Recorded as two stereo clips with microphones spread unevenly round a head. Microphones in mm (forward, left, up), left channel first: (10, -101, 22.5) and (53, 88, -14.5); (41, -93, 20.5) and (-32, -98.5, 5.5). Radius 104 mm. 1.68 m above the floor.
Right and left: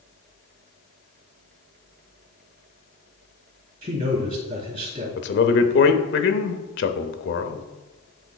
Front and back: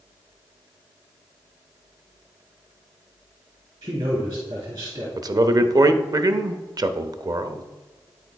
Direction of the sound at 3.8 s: 135° left.